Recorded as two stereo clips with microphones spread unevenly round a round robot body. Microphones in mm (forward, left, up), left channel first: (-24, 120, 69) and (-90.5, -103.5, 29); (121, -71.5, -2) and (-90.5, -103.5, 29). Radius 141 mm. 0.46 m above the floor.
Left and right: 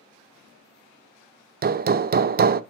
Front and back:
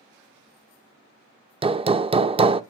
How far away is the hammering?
About 0.6 m.